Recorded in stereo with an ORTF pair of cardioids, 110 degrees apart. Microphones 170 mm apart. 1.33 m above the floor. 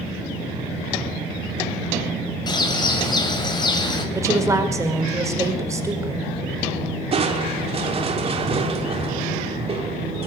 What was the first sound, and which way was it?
A bird, 25° left.